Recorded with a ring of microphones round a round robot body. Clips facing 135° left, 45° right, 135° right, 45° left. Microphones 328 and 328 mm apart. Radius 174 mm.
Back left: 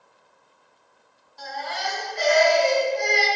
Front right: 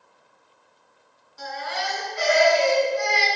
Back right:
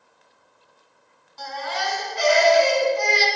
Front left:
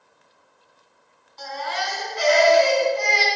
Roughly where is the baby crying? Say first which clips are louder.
Front right 1 dB, even; behind right.